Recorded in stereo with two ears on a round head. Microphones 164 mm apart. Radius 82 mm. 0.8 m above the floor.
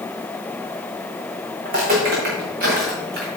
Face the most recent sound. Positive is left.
turn(degrees=-45)  # may be behind; listen again after turning